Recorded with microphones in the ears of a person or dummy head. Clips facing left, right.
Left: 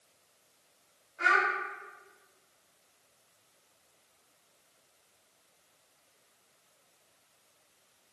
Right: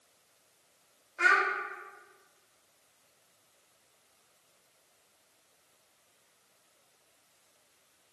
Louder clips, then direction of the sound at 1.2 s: Even; 70° right (ahead or behind).